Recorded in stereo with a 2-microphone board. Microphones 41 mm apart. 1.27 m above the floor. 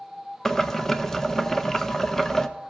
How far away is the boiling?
About 0.5 m.